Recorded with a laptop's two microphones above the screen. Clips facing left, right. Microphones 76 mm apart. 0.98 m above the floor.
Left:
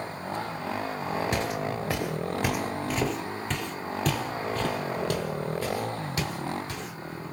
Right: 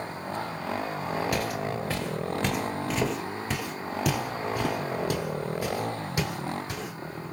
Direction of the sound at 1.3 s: 25° left (ahead or behind).